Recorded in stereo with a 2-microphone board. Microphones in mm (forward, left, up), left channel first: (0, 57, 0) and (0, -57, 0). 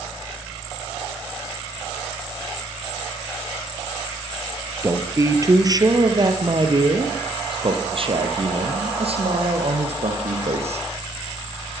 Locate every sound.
4.8 s a man speaking: 25° right (ahead or behind), 5 m; by 10.8 s 65° right (ahead or behind), 9 m